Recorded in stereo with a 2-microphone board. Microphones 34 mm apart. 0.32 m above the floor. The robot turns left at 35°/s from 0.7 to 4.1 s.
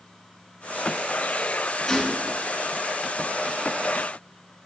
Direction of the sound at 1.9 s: 15° left (ahead or behind).